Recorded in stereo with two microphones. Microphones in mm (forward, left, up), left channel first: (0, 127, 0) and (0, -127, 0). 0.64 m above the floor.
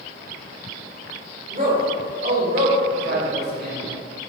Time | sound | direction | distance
1.5 | a man speaking | 35° right (ahead or behind) | 2.5 m